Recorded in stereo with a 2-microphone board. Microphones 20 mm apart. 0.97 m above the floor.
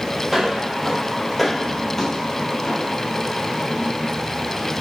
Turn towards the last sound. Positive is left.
turn(degrees=35)  # may be behind; listen again after turning